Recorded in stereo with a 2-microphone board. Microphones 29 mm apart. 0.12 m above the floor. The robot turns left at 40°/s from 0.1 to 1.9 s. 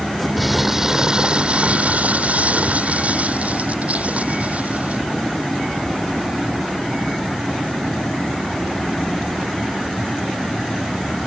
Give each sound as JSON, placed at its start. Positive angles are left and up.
{"t": 0.4, "sound": "crumpling", "azimuth_deg": 0}